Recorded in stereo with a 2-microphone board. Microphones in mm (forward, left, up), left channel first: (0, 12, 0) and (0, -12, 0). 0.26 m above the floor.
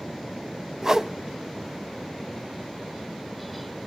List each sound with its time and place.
0.8 s a whoosh: 20° right (ahead or behind), 0.5 m